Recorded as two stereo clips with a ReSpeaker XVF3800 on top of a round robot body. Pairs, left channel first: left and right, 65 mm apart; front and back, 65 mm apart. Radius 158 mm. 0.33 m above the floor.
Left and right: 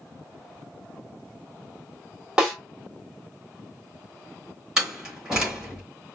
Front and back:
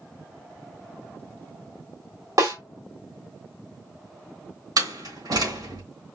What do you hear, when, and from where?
2.4 s a snare drum: 170° right, 1.8 m
4.8 s a door slam: 175° right, 3 m